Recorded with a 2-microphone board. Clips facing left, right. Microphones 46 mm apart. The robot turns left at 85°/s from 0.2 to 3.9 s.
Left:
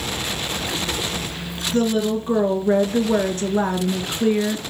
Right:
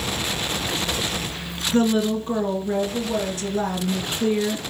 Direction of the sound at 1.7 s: 150° right.